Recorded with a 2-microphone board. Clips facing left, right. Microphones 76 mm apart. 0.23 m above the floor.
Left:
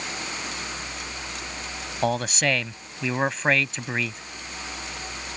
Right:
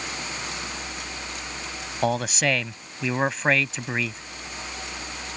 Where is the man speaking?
Centre (ahead or behind).